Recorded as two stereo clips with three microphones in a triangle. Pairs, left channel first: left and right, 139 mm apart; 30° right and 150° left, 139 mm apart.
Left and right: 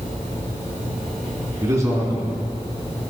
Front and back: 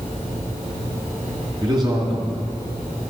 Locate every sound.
1.6 s a man speaking: 155° right, 2.5 m